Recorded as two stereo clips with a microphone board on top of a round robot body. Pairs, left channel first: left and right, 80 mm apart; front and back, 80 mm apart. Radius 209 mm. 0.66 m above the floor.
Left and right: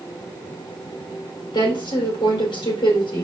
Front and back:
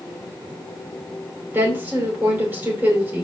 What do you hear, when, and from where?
1.5 s a woman speaking: 115° left, 4 m